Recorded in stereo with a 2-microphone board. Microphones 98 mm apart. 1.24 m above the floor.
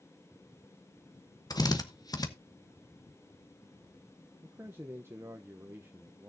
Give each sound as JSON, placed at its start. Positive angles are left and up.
{"t": 1.5, "sound": "a drill", "side_deg": 40, "distance_m": 0.9}
{"t": 4.4, "sound": "a man speaking", "side_deg": -25, "distance_m": 0.7}